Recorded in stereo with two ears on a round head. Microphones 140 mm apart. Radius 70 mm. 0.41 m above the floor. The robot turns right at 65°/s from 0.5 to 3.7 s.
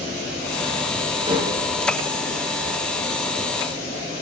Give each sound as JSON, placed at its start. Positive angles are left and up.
{"t": 1.3, "sound": "dishes clattering", "side_deg": -25, "distance_m": 3.5}